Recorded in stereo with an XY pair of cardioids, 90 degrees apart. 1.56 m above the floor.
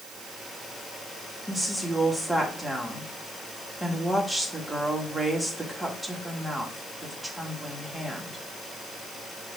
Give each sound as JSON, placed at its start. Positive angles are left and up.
{"t": 1.5, "sound": "a woman speaking", "azimuth_deg": -5, "distance_m": 2.5}